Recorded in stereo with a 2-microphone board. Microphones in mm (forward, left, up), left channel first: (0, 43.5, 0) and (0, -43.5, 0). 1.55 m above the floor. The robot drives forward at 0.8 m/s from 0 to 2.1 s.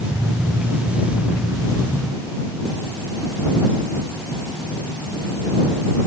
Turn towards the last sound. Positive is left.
No sound to turn to.